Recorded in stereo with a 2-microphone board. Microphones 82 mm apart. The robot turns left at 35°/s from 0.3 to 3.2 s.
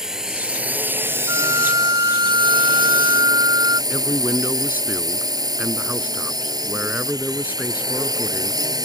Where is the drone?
10° right; by 8.9 s 110° right.